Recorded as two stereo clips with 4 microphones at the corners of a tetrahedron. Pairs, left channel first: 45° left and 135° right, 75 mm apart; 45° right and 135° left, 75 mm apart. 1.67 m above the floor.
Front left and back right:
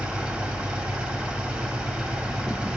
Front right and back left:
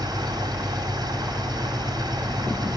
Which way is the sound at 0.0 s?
155° left.